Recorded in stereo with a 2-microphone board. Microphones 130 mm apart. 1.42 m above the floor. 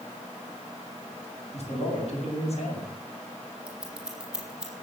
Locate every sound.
1.5 s a man speaking: 55° left (ahead or behind), 8.5 m
3.7 s scissors: 5° right (ahead or behind), 5.5 m